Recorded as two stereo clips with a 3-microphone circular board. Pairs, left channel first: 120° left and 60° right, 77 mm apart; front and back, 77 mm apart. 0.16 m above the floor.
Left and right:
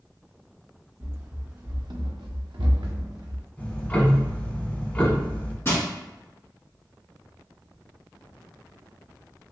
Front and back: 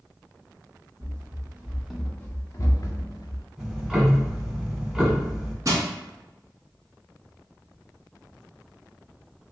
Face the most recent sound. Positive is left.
turn(degrees=165)